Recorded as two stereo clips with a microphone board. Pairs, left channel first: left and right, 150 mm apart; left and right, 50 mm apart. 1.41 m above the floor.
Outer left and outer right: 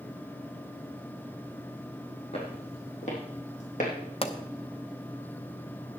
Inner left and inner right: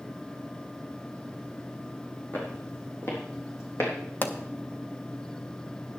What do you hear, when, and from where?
2.3 s footsteps: 40° left (ahead or behind), 3.5 m; by 3.9 s 60° left (ahead or behind), 4 m
4.2 s a pop: 40° left (ahead or behind), 1.1 m